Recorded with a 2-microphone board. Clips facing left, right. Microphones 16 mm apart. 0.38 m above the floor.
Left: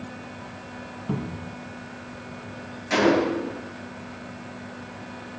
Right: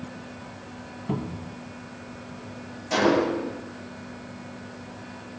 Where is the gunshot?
75° left (ahead or behind), 4 m.